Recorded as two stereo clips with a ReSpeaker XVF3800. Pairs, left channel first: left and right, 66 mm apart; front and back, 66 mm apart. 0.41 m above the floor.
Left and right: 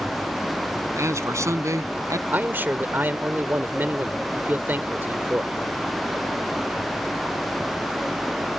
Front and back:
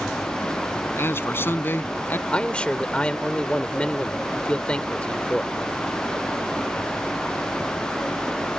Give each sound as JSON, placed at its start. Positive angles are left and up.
{"t": 1.0, "sound": "a man speaking", "azimuth_deg": -50}
{"t": 2.3, "sound": "a man speaking", "azimuth_deg": -60}